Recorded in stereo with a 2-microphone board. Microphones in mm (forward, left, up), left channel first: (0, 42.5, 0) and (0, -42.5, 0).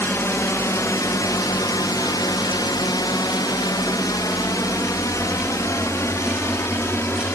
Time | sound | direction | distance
0.0 | a drone | 30° left (ahead or behind) | ?